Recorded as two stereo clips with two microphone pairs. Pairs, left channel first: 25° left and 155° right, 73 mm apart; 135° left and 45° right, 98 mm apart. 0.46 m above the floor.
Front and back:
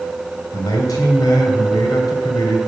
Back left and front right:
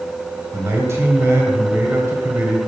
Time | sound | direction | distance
0.5 | a man speaking | 10° left | 2.5 m